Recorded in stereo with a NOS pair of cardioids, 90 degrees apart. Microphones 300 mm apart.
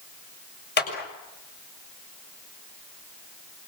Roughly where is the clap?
Ahead left.